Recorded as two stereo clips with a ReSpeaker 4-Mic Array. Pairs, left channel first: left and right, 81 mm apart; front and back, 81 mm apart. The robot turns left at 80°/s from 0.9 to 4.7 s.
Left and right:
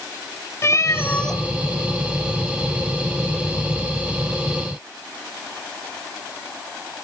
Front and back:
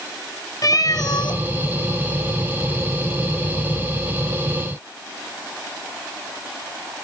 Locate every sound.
0.6 s a cat meowing: 40° left, 1.8 m; by 1.4 s straight ahead, 1.8 m